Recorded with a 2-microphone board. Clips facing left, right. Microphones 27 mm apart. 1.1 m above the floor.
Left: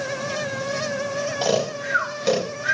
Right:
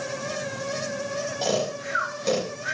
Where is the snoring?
30° left (ahead or behind), 3.5 m.